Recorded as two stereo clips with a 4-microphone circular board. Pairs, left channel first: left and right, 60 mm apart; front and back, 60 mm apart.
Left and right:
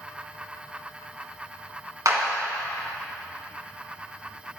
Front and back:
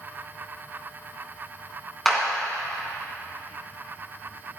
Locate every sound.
2.0 s a clap: 85° right, 2 m